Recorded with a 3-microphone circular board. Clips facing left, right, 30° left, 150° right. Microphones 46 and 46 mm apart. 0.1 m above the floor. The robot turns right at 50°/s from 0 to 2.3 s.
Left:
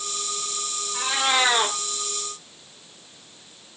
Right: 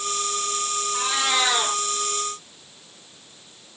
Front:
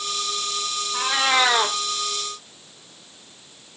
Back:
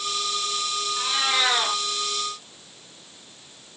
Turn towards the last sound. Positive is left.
turn(degrees=65)